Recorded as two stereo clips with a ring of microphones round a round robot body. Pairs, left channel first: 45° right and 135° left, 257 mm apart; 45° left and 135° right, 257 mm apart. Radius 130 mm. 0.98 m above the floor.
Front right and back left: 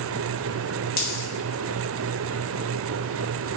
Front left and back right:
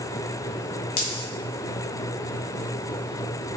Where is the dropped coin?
10° left, 1.2 m.